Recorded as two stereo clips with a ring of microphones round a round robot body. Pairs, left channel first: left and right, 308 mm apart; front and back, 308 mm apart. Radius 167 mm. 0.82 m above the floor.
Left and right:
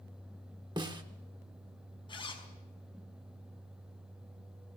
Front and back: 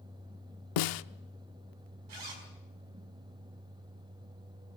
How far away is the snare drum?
About 0.7 m.